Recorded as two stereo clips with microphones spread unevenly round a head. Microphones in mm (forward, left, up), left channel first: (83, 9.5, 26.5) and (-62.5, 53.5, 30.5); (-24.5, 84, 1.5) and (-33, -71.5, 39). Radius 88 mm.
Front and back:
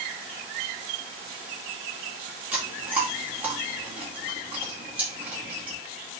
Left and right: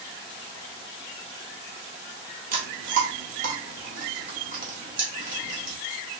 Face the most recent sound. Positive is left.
turn(degrees=-115)